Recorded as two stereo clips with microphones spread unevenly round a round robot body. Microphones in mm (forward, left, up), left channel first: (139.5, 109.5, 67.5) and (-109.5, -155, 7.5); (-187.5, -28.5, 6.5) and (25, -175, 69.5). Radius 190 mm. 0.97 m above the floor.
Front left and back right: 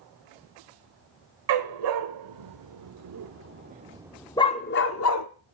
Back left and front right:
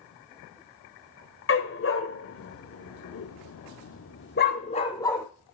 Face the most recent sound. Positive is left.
turn(degrees=50)